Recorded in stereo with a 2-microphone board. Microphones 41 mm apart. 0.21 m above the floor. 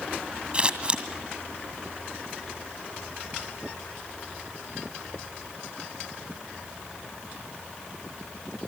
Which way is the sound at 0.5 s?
25° right (ahead or behind).